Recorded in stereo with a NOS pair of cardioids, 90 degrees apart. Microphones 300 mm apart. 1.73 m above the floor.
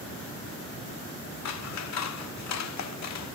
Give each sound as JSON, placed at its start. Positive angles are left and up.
{"t": 1.4, "sound": "scissors", "azimuth_deg": 65, "distance_m": 1.3}